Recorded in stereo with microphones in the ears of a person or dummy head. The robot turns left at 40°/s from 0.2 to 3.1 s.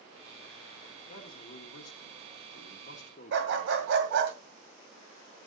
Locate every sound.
1.1 s a man speaking: 125° left, 1.5 m; by 3.9 s 45° left, 1.5 m
3.3 s a dog barking: 60° right (ahead or behind), 1.9 m